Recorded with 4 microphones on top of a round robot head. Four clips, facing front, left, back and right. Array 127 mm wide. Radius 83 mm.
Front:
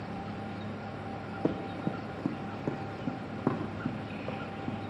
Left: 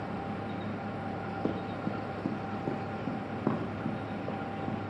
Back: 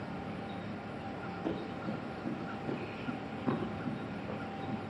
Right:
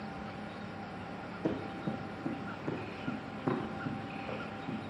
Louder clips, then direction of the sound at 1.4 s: Even, front 6 dB; 25° left.